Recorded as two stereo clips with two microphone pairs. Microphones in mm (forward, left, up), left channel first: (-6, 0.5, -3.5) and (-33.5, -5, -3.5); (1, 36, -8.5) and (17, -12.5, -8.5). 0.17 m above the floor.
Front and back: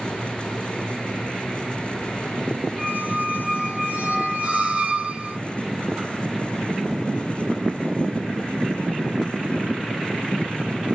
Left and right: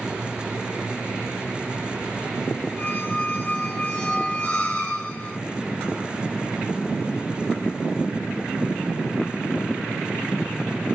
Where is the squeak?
160° left, 1.2 m.